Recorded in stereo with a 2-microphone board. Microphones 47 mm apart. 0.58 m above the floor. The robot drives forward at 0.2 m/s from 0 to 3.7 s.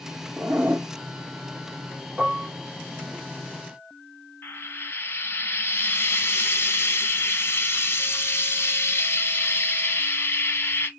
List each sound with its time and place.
0.4 s a zipper: 60° right (ahead or behind), 0.6 m; by 3.2 s 30° right (ahead or behind), 0.9 m
2.2 s dishes clattering: 20° right (ahead or behind), 0.9 m
4.4 s frying: 50° left (ahead or behind), 0.8 m